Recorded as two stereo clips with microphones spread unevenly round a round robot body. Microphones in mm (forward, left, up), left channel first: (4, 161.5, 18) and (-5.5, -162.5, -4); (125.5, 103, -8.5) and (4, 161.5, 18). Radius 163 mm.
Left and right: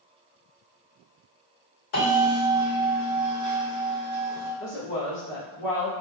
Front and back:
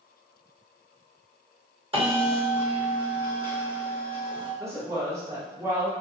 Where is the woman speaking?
85° left, 1.2 m.